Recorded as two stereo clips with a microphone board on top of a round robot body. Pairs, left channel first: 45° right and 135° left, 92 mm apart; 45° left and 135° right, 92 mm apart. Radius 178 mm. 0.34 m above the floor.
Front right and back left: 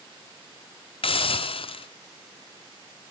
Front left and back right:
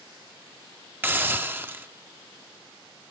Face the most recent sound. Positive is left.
turn(degrees=-65)